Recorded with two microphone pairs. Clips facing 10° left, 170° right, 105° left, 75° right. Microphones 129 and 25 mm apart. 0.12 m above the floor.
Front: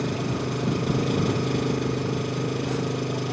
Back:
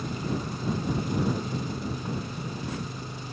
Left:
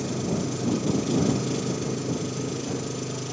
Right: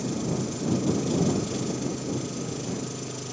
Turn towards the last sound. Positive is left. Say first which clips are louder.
# front 5 dB, left 1 dB
turn(degrees=30)